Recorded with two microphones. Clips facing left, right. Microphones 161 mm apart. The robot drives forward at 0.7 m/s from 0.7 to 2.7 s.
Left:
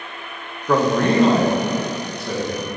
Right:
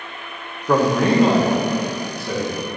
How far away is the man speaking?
About 0.6 m.